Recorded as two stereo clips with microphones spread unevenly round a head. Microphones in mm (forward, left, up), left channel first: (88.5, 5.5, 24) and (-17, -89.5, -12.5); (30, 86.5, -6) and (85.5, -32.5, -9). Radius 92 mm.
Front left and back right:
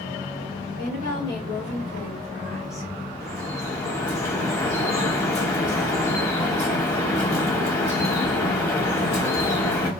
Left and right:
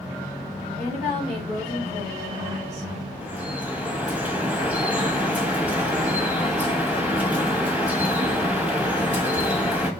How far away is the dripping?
About 1.0 m.